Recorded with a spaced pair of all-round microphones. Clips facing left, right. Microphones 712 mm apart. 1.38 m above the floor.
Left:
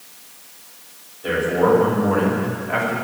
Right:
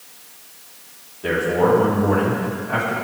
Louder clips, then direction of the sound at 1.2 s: Even; 80° right.